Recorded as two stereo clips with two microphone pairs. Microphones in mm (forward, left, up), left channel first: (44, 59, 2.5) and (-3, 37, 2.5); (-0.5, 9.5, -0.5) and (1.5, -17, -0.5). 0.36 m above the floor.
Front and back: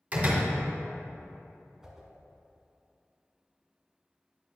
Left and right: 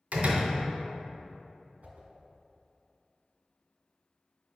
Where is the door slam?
100° right, 2.0 m.